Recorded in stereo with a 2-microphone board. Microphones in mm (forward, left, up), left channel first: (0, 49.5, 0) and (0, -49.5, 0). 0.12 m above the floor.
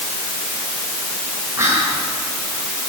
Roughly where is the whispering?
Right.